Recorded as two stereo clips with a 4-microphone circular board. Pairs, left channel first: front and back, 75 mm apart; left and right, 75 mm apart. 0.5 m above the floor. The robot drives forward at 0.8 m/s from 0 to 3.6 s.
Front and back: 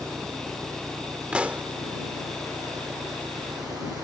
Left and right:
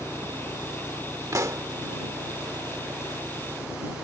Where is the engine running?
140° left; by 4.0 s 145° left.